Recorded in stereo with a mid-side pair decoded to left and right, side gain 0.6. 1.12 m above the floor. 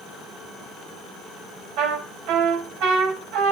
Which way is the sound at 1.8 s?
70° right.